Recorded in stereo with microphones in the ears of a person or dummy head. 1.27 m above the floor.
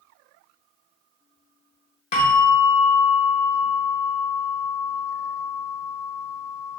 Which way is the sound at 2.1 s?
40° left (ahead or behind).